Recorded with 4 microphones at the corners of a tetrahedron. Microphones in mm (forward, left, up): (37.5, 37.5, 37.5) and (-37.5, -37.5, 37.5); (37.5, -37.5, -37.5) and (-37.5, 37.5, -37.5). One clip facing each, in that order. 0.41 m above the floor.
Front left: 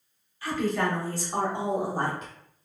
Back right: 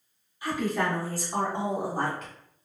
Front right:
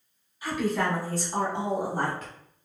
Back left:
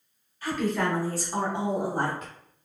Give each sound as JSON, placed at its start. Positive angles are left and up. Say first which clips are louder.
{"t": 0.4, "sound": "a woman speaking", "louder": "front left 1 dB, even", "azimuth_deg": -95, "distance_m": 1.0}